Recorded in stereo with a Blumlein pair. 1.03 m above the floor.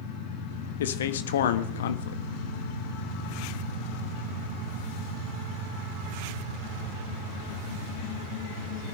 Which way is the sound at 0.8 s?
60° left.